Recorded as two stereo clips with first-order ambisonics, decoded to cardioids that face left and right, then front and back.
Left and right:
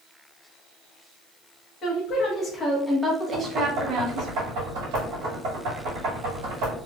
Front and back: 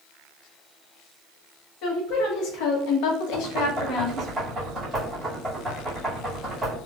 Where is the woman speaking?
35° left, 1.1 m; by 4.3 s 55° right, 0.9 m.